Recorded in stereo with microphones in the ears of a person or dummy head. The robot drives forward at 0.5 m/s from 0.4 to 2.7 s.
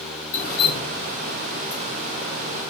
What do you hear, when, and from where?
0.3 s dripping: 45° left (ahead or behind), 1.6 m; by 1.8 s 55° left (ahead or behind), 1.4 m